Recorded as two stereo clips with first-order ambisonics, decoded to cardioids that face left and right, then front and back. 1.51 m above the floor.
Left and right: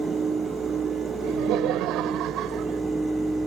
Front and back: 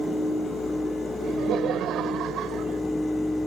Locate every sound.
1.2 s laughter: 125° right; by 2.8 s 135° right